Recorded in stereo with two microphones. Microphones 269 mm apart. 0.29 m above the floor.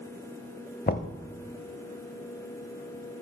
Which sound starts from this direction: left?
Knocking, at 0.9 s.